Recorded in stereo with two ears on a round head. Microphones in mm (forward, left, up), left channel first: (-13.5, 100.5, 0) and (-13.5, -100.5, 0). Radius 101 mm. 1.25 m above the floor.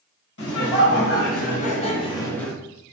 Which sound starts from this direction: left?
Laughter, at 0.4 s.